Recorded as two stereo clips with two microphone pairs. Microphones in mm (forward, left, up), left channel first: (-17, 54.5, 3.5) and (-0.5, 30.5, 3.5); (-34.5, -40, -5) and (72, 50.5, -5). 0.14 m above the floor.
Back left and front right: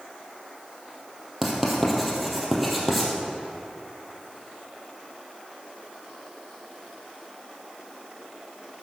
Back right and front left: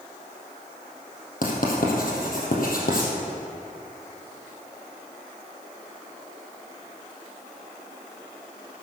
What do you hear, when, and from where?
1.4 s writing: 145° right, 3 m